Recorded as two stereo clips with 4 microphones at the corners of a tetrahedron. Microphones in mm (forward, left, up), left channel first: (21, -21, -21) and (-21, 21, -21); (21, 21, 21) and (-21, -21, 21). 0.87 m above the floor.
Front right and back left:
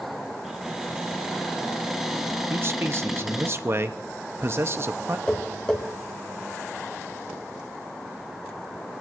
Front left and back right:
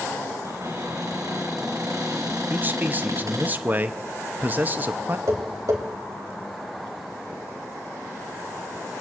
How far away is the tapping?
About 2.5 m.